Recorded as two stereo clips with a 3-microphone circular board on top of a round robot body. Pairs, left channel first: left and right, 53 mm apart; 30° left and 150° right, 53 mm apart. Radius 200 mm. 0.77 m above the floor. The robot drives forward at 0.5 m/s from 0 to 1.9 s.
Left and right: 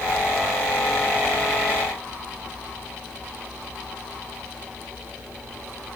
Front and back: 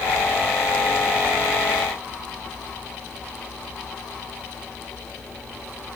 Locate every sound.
Only background noise.